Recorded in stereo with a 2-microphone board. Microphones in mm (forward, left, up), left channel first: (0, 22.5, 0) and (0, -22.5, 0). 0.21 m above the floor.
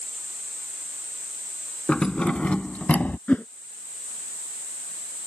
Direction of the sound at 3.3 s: 30° left (ahead or behind).